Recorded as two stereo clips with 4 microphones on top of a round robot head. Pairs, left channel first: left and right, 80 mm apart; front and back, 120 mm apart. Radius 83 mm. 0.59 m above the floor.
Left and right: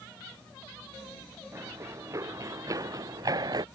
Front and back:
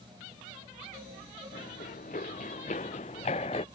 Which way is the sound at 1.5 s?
35° right.